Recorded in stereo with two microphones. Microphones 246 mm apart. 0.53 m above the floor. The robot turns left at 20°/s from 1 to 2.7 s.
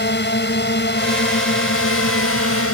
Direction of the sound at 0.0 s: 125° left.